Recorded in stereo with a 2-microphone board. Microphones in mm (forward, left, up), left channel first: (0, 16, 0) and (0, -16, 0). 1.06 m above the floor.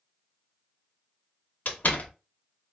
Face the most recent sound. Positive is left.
turn(degrees=60)  # may be behind; listen again after turning